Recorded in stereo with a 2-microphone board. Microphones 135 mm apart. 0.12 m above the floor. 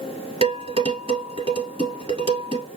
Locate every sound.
0.4 s dishes clattering: 40° right (ahead or behind), 1.6 m